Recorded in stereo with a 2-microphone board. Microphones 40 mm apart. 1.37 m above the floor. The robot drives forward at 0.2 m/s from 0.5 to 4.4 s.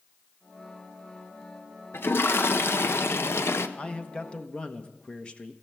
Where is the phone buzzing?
No phone buzzing in this recording.